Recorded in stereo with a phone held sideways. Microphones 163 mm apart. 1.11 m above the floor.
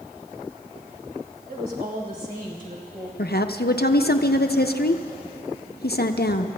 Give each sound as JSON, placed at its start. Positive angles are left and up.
{"t": 1.5, "sound": "a woman speaking", "side_deg": -65, "distance_m": 3.0}
{"t": 3.2, "sound": "a woman speaking", "side_deg": 75, "distance_m": 0.6}